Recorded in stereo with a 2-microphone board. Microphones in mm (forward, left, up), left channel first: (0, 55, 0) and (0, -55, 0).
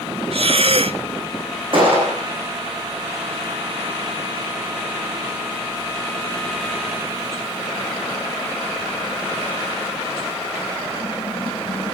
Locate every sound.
0.3 s breathing: 60° right (ahead or behind), 0.6 m
1.7 s a gunshot: 50° right (ahead or behind), 10 m